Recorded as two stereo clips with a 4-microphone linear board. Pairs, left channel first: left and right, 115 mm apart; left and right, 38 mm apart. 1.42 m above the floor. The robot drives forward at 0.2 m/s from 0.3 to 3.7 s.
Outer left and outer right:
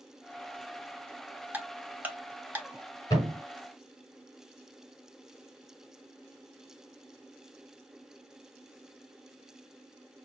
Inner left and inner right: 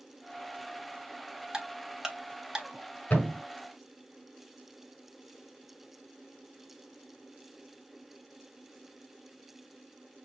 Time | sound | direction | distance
1.5 | ticking | 15° right (ahead or behind) | 1.1 m
3.1 | a thud | 35° left (ahead or behind) | 4.5 m